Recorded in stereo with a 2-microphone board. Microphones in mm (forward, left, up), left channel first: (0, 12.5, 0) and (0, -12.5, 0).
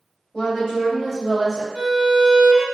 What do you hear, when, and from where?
0.3 s a woman speaking: 35° left (ahead or behind), 1.3 m; by 1.6 s 30° right (ahead or behind), 1.1 m
1.7 s a violin: 75° right (ahead or behind), 0.9 m